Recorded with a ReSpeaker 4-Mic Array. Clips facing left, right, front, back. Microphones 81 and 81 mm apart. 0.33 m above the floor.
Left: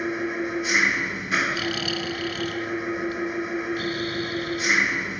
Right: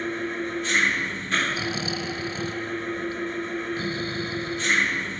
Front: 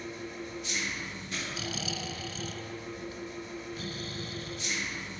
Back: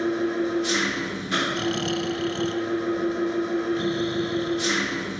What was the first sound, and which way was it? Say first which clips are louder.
An engine running: left 2 dB, back 16 dB; 170° left.